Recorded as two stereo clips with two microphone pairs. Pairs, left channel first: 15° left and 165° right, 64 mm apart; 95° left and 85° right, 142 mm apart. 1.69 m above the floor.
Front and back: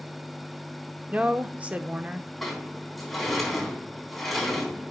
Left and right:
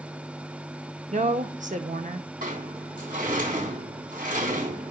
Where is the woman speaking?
95° right, 0.9 m.